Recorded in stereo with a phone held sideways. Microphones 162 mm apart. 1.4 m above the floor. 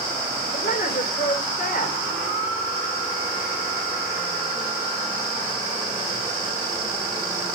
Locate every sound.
0.5 s a woman speaking: 55° left (ahead or behind), 4 m